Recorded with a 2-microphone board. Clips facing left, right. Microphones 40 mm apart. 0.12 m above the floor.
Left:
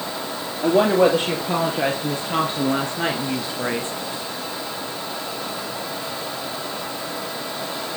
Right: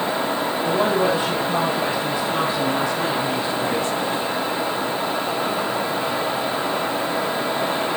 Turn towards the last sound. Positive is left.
turn(degrees=30)  # may be behind; listen again after turning